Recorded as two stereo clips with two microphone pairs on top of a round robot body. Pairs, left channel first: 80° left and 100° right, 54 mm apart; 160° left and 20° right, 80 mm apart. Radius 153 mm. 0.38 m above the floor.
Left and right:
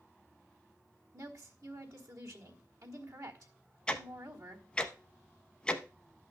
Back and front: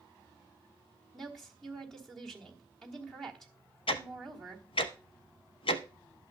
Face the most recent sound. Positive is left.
turn(degrees=155)